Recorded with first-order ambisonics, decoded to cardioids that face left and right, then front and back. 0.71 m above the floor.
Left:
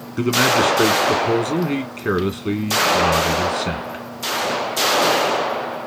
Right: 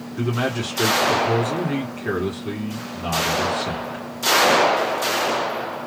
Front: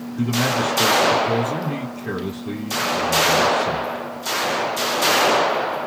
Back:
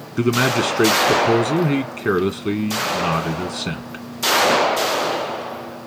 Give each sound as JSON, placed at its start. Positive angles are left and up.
{"t": 0.2, "sound": "a man speaking", "azimuth_deg": 160, "distance_m": 1.8}